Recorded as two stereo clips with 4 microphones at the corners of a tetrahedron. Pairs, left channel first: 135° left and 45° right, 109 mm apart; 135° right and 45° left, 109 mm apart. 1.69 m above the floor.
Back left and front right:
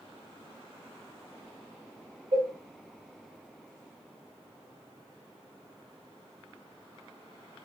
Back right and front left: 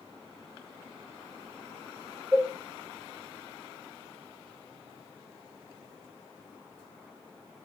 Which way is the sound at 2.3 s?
35° right.